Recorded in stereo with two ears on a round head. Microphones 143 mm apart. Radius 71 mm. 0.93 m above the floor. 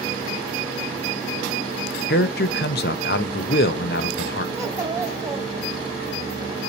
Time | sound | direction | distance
2.1 | a man speaking | 70° left (ahead or behind) | 0.5 m
4.5 | a child speaking | 20° right (ahead or behind) | 0.8 m